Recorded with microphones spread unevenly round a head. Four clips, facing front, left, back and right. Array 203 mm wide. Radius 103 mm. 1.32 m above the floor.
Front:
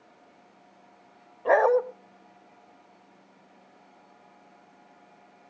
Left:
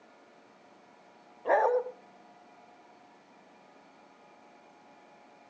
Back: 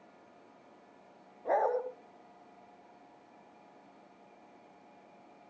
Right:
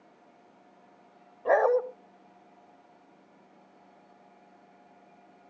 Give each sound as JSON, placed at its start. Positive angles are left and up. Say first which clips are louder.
{"t": 1.4, "sound": "a dog barking", "louder": "right 2 dB, front 9 dB", "azimuth_deg": -30, "distance_m": 0.8}